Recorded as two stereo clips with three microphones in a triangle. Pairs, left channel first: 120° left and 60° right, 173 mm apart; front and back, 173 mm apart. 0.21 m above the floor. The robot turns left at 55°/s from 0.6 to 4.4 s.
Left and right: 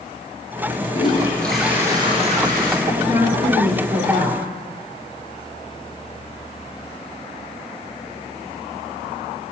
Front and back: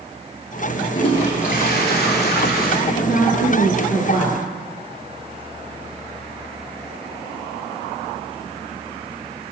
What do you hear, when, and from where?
0.9 s a toilet flushing: 65° left, 2.0 m; by 2.8 s 35° right, 2.0 m
2.9 s a woman speaking: 15° left, 2.5 m; by 4.4 s 70° right, 2.5 m